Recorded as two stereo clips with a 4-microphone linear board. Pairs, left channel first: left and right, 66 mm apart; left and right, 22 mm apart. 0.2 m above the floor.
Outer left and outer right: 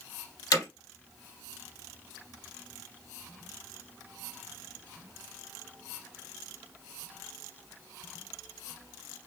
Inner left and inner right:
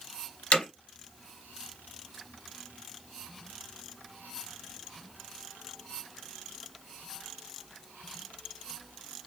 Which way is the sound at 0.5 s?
60° left (ahead or behind).